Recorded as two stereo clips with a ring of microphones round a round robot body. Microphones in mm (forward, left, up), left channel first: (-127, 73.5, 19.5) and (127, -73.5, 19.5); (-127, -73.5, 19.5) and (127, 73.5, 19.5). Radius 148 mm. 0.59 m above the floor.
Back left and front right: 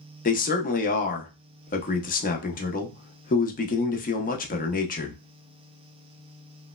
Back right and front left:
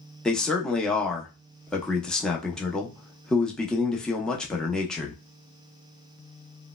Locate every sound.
0.2 s a man speaking: 125° left, 0.6 m